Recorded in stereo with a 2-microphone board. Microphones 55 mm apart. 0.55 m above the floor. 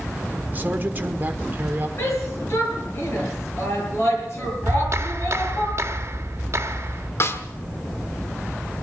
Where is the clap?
55° right (ahead or behind), 1.2 m.